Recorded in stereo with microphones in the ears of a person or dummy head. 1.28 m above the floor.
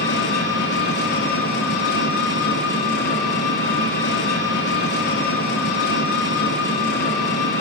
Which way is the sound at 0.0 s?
55° left (ahead or behind).